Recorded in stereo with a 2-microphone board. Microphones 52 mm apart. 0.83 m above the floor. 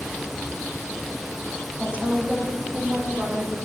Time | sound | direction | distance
1.8 | a woman speaking | 20° right (ahead or behind) | 5 m